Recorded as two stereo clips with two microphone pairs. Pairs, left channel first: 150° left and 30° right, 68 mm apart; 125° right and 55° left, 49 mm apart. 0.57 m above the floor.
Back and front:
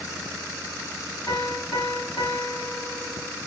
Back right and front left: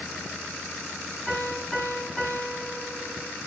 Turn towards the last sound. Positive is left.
turn(degrees=140)